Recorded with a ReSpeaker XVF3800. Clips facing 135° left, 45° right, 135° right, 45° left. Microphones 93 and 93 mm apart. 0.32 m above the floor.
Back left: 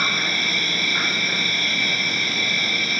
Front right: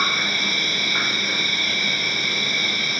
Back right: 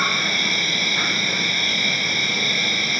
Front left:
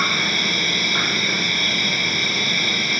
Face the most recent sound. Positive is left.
turn(degrees=25)